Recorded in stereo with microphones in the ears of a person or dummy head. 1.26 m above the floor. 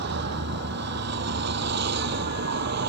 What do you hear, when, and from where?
0.0 s a vehicle: 65° right (ahead or behind)